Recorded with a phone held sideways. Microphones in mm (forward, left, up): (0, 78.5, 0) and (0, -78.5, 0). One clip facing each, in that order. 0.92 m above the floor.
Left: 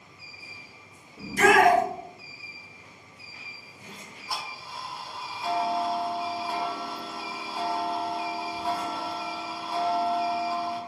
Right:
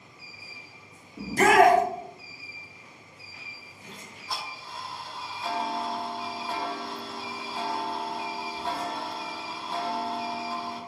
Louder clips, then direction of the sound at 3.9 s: Left 1 dB; 10° left (ahead or behind).